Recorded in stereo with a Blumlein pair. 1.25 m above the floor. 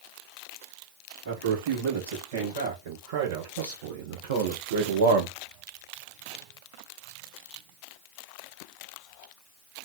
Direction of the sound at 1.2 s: 55° right.